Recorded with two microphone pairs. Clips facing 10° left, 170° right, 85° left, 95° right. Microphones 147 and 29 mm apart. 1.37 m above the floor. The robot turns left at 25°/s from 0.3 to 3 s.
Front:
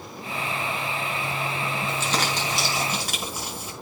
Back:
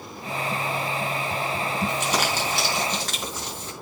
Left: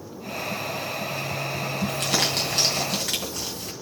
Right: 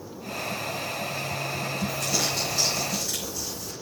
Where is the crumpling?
115° left, 3 m; by 3.7 s 90° left, 3 m.